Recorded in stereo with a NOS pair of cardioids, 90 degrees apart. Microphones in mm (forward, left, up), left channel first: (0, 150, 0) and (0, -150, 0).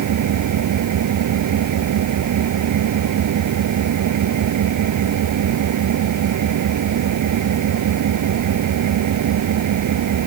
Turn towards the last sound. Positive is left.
turn(degrees=-70)